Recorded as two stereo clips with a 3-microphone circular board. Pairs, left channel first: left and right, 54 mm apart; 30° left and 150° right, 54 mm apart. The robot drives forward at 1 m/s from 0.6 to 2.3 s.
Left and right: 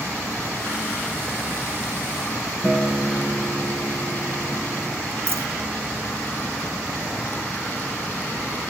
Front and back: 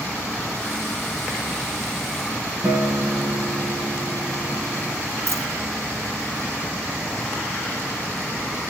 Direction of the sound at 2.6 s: 170° left.